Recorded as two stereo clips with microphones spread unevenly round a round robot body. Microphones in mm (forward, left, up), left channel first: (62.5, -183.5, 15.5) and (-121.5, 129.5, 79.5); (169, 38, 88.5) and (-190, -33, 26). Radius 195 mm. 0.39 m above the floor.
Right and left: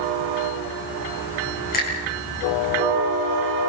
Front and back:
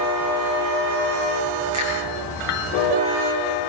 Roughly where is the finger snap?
Behind right.